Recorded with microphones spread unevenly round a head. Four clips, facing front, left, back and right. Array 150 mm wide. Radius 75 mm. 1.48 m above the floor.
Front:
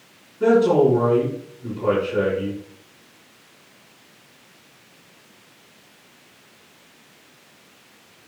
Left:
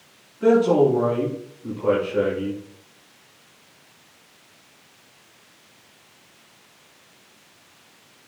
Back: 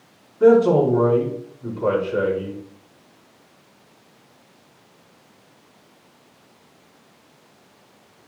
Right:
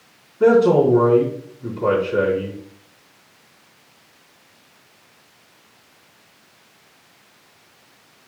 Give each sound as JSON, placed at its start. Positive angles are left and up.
{"t": 0.4, "sound": "a man speaking", "azimuth_deg": -90, "distance_m": 4.5}